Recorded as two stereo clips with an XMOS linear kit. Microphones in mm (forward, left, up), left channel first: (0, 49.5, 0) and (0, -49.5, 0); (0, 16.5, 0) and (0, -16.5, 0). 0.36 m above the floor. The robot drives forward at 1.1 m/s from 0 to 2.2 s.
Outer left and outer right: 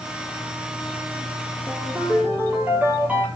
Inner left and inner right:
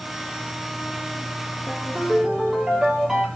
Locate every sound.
1.7 s a ringtone: 20° right (ahead or behind), 7 m; by 3.3 s 15° right (ahead or behind), 7.5 m